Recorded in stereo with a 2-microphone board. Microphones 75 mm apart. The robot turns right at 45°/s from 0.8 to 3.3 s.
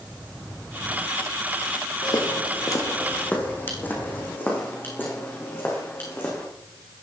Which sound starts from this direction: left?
Footsteps, at 2.0 s.